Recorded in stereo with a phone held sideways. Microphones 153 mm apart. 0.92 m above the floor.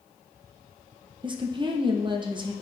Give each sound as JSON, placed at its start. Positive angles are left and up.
{"t": 1.2, "sound": "a woman speaking", "side_deg": -30, "distance_m": 0.6}